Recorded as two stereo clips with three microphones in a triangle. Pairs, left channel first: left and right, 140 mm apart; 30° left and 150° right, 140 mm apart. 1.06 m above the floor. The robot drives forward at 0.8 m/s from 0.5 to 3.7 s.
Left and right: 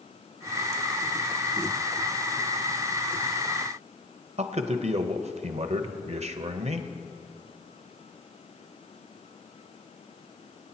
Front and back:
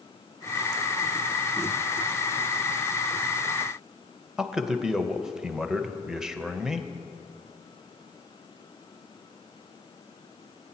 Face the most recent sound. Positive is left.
turn(degrees=-65)